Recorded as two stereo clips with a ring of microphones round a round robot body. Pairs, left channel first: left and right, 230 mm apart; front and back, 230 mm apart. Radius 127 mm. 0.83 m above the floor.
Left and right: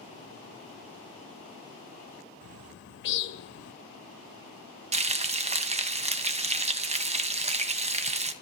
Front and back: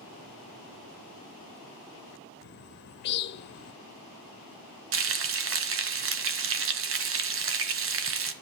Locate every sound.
2.4 s a bird: 45° left, 0.7 m
4.9 s frying: 150° right, 1.5 m